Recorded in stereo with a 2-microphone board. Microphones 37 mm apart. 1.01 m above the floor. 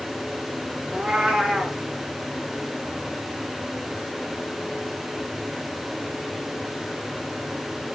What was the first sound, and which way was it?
A cat meowing, 10° right (ahead or behind).